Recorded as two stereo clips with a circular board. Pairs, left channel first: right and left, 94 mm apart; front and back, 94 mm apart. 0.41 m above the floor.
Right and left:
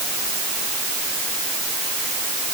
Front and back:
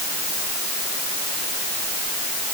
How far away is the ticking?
No ticking in this recording.